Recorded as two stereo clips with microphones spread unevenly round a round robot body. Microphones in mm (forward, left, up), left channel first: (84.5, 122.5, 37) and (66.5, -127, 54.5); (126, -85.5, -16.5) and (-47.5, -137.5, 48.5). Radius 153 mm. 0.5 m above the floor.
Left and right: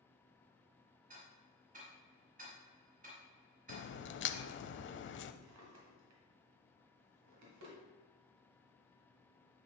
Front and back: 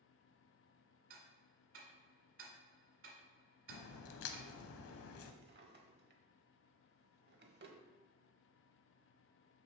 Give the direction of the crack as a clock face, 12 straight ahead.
11 o'clock.